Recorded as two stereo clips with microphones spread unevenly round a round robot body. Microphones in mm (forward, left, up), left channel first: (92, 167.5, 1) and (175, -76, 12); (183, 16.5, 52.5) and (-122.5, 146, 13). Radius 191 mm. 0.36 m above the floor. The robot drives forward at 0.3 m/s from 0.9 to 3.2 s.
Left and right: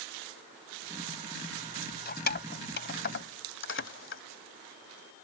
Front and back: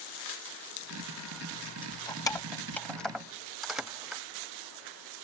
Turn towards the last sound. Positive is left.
turn(degrees=70)